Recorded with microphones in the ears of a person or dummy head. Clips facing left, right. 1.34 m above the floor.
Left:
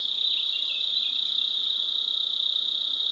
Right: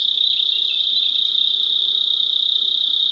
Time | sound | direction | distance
0.0 | an insect | 55° right (ahead or behind) | 2 m